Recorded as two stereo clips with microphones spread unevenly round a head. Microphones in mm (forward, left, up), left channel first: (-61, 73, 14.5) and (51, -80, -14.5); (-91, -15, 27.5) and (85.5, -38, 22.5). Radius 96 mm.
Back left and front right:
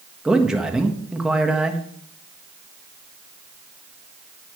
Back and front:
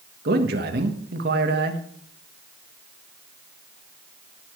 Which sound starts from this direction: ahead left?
A man speaking, at 0.2 s.